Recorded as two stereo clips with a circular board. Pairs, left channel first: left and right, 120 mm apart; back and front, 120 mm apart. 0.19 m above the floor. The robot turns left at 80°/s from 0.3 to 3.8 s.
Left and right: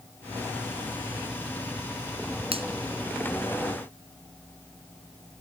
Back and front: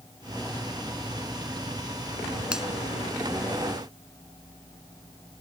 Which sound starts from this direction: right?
A finger snap, at 2.5 s.